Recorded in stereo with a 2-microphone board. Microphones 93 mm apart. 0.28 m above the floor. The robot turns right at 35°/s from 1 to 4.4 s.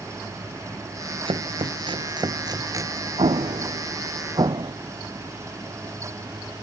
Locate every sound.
1.3 s chopping: 80° right; by 3.1 s 30° right (ahead or behind)
3.2 s an explosion: 80° right; by 4.7 s 55° right (ahead or behind)